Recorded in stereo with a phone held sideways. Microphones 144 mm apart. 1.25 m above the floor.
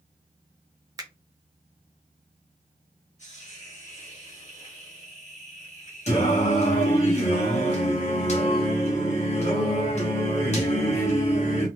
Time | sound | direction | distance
1.0 | a finger snap | 25° right (ahead or behind) | 0.6 m
3.2 | a hiss | 50° left (ahead or behind) | 1.7 m
6.1 | singing | 50° left (ahead or behind) | 1.0 m